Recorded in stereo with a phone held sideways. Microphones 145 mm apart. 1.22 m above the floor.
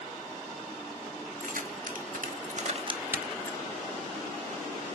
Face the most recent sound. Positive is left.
turn(degrees=25)  # may be behind; listen again after turning